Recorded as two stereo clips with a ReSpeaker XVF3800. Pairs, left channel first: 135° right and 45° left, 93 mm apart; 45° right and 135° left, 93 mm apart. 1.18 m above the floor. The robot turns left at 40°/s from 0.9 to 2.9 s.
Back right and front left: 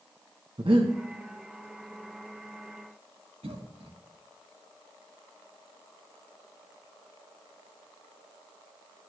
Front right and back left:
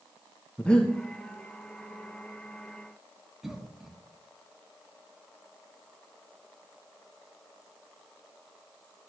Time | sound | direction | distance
0.6 | breathing | 35° left | 1.5 m
3.4 | a cough | 45° left | 2.5 m